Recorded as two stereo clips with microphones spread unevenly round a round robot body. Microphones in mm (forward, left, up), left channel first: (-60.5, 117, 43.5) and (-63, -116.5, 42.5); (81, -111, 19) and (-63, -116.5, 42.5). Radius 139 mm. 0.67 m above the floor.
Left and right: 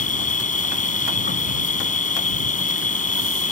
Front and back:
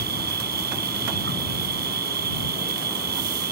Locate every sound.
0.0 s an insect: 145° left